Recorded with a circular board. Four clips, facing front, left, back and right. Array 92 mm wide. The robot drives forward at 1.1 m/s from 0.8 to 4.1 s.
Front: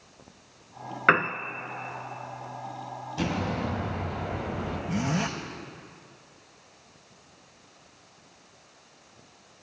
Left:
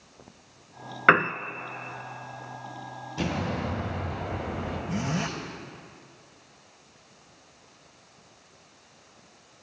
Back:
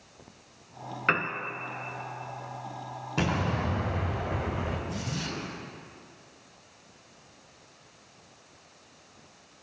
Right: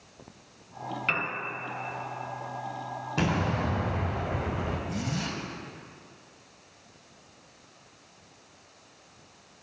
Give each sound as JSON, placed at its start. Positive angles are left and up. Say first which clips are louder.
{"t": 1.1, "sound": "a piano", "louder": "left 14 dB, front 6 dB", "azimuth_deg": 65, "distance_m": 0.6}
{"t": 3.2, "sound": "an explosion", "louder": "right 2 dB, back 1 dB", "azimuth_deg": -135, "distance_m": 3.5}
{"t": 4.9, "sound": "a zipper", "louder": "left 3 dB, front 7 dB", "azimuth_deg": 35, "distance_m": 4.0}